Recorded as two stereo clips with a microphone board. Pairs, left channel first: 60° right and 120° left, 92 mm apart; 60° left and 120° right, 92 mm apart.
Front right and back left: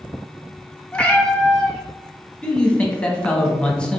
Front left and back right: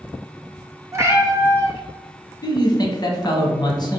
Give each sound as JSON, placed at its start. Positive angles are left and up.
{"t": 0.9, "sound": "a cat meowing", "azimuth_deg": -125, "distance_m": 0.7}
{"t": 2.4, "sound": "a man speaking", "azimuth_deg": 20, "distance_m": 1.0}